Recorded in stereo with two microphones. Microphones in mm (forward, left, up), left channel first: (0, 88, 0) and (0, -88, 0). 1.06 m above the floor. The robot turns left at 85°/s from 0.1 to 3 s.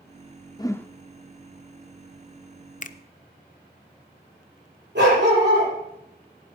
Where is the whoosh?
25° left (ahead or behind), 0.8 m; by 0.9 s 5° left (ahead or behind), 0.8 m.